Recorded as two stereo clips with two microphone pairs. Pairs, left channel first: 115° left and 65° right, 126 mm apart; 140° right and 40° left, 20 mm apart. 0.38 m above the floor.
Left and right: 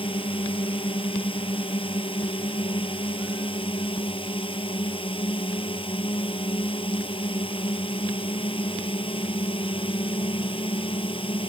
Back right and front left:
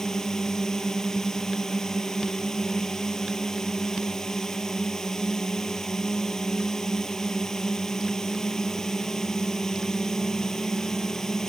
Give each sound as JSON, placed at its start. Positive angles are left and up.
{"t": 0.0, "sound": "a drone", "azimuth_deg": 160}